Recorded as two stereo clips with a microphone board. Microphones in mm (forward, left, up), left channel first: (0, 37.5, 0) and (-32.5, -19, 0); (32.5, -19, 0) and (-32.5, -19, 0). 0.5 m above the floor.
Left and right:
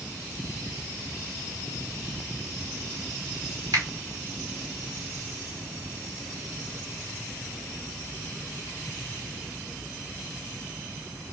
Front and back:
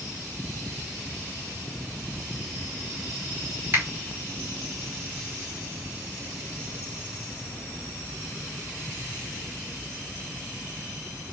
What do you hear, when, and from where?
3.7 s a finger snap: 135° right, 2.5 m